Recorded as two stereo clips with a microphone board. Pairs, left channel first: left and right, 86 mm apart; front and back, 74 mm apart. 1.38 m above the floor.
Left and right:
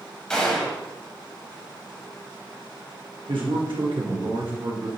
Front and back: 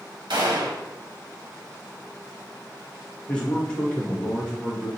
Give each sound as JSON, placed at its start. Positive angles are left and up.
{"t": 0.3, "sound": "a gunshot", "azimuth_deg": 170, "distance_m": 1.1}
{"t": 3.3, "sound": "a man speaking", "azimuth_deg": -75, "distance_m": 1.5}